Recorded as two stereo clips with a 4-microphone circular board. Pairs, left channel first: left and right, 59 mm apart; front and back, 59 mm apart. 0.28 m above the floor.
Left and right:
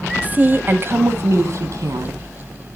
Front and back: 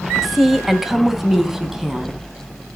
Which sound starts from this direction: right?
A woman speaking, at 0.2 s.